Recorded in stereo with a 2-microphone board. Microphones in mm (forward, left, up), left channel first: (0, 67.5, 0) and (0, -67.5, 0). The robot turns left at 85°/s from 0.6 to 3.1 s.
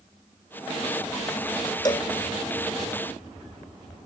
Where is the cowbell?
30° left (ahead or behind); by 2.1 s 50° left (ahead or behind).